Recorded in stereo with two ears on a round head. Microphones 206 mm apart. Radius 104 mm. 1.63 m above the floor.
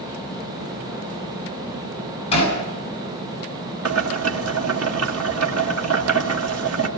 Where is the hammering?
25° left (ahead or behind), 8 m.